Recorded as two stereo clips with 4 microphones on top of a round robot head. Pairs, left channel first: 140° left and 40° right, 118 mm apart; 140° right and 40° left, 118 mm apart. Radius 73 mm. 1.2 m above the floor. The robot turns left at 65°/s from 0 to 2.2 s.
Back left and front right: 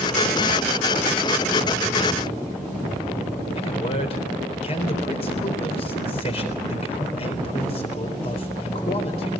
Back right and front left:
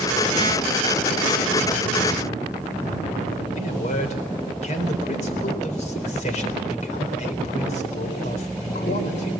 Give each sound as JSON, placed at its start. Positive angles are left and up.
{"t": 3.6, "sound": "a man speaking", "azimuth_deg": -175, "distance_m": 3.5}